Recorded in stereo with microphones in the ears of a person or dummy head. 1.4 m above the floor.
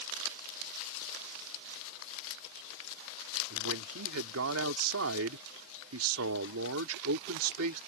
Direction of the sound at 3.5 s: 85° right.